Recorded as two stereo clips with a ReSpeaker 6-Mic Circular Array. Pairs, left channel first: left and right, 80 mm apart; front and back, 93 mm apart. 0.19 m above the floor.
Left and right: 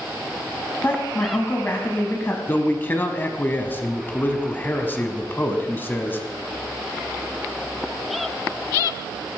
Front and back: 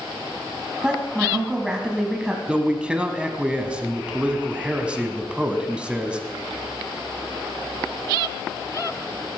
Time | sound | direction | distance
0.8 | a woman speaking | 110° left | 1.3 m
2.5 | a man speaking | 115° left | 1.1 m